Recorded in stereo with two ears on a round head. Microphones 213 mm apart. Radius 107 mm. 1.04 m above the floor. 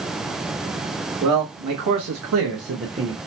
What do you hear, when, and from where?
1.2 s a man speaking: 75° right (ahead or behind), 1.2 m; by 3.2 s 25° right (ahead or behind), 0.8 m